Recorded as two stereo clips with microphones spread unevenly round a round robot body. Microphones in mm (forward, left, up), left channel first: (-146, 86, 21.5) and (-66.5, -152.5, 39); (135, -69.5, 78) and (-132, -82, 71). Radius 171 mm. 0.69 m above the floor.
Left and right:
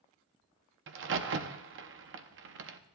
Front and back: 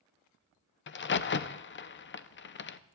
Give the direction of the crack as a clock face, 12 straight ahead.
1 o'clock.